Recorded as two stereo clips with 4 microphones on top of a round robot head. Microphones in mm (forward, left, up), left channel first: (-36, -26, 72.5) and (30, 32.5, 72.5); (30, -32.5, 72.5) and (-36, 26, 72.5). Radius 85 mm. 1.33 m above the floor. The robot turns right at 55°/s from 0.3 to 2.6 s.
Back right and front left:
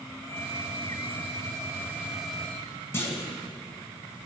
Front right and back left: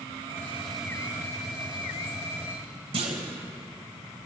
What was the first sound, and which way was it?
A gunshot, 25° left.